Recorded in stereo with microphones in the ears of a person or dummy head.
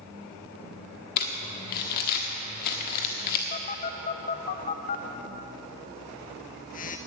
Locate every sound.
1.2 s crumpling: 50° left (ahead or behind), 1.4 m
3.5 s a phone buzzing: 40° left (ahead or behind), 0.6 m